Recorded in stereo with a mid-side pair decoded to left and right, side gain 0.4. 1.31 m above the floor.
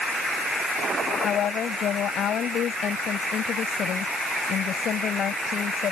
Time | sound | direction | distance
1.2 | a woman speaking | 70° left | ?